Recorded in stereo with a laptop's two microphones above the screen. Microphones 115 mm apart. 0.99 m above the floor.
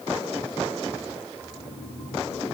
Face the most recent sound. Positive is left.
turn(degrees=45)  # may be behind; listen again after turning